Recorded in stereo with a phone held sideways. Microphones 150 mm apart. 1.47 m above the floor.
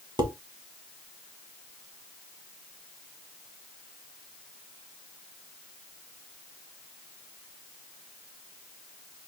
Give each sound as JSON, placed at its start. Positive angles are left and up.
{"t": 0.2, "sound": "dishes clattering", "side_deg": -30, "distance_m": 1.2}